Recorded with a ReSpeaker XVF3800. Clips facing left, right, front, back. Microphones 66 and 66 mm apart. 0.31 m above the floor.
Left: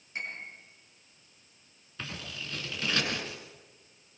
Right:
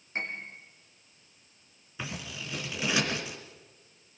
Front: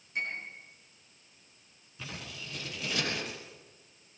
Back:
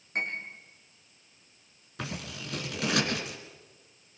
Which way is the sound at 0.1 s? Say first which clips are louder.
Right 3 dB, back 3 dB; 145° right.